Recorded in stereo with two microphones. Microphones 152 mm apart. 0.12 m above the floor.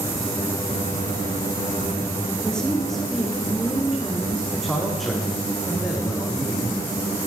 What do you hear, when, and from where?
2.4 s a woman speaking: 5° left (ahead or behind), 6.5 m; by 4.4 s 5° right (ahead or behind), 8 m
4.5 s a man speaking: centre (ahead or behind), 6.5 m